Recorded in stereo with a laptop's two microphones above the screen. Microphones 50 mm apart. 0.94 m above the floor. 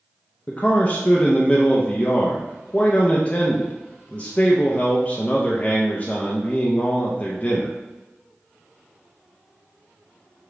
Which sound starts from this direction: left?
A man speaking, at 0.5 s.